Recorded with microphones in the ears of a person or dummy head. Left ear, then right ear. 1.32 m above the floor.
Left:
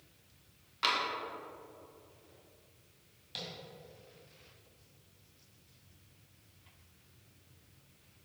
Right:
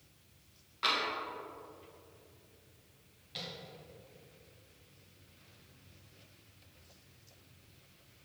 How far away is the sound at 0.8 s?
About 1.6 m.